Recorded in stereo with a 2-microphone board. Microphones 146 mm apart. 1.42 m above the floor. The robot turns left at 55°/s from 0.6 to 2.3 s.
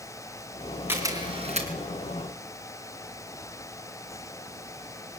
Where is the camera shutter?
15° right (ahead or behind), 4.5 m; by 1.7 s 55° right (ahead or behind), 4.5 m.